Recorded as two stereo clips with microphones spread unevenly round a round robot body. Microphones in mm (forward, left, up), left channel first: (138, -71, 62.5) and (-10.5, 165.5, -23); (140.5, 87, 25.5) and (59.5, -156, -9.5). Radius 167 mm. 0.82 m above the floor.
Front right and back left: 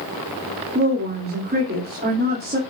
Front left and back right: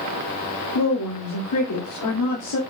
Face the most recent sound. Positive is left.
turn(degrees=70)